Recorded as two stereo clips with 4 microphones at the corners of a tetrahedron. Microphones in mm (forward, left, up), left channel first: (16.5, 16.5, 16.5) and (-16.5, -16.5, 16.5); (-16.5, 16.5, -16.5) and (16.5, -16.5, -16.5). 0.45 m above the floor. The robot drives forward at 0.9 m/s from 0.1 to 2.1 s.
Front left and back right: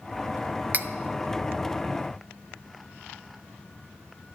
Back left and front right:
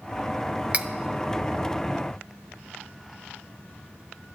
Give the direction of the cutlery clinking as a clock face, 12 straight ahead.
3 o'clock.